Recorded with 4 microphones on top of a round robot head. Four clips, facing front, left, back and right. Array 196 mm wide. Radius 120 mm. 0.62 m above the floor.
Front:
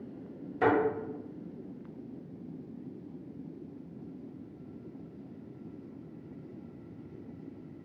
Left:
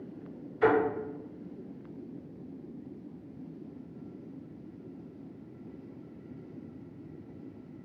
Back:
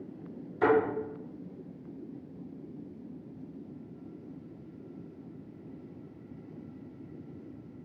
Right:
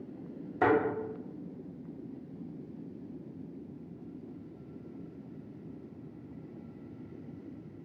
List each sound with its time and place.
0.6 s a thud: 65° right, 1.5 m